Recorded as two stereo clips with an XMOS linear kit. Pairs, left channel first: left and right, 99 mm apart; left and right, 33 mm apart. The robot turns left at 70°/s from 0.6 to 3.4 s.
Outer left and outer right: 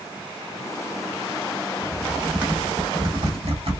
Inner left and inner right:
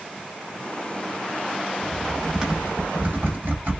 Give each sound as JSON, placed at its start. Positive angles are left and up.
{"t": 1.8, "sound": "typing on a keyboard", "side_deg": 25, "distance_m": 1.3}